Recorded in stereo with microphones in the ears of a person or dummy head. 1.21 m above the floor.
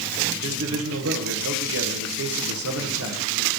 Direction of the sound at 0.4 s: 70° right (ahead or behind).